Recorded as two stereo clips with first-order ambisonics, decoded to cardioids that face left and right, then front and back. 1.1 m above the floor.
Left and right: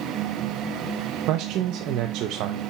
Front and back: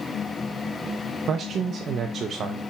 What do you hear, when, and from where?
1.3 s a man speaking: 120° right, 0.6 m